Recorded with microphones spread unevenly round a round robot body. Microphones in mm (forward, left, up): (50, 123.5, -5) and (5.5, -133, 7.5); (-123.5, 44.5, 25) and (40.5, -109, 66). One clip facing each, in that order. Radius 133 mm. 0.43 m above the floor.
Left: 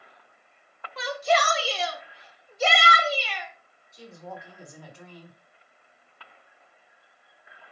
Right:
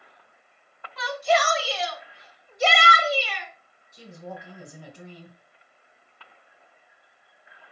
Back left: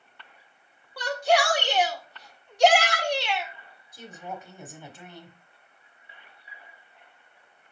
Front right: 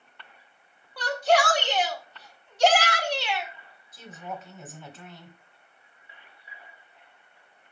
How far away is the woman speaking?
About 1.2 m.